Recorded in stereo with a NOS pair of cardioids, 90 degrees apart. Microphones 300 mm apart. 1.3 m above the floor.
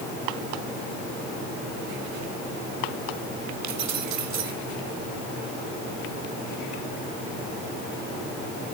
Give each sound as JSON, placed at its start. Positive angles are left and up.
{"t": 3.6, "sound": "keys jangling", "azimuth_deg": -60, "distance_m": 4.0}